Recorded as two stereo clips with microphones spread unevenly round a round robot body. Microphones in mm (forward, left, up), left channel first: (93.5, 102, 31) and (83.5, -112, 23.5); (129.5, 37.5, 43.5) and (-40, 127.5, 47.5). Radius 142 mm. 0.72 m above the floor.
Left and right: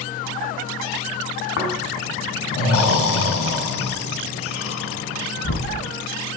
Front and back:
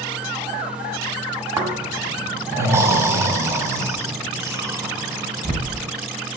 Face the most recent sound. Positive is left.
turn(degrees=75)